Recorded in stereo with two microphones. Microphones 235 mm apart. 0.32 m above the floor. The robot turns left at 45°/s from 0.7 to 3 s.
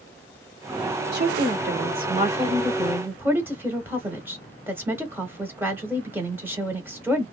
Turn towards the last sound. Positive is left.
turn(degrees=-165)